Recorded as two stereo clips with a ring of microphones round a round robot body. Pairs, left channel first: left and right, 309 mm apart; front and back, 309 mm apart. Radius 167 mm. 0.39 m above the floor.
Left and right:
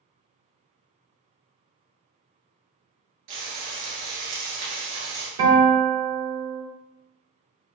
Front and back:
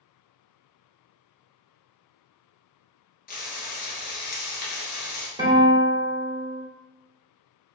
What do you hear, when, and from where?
3.3 s frying: 60° right, 1.3 m
5.4 s a guitar: 105° right, 1.7 m